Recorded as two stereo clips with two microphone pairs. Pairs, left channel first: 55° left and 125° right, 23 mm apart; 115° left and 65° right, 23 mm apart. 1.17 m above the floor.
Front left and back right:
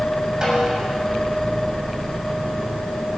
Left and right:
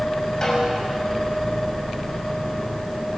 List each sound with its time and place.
0.4 s a snare drum: 175° left, 6 m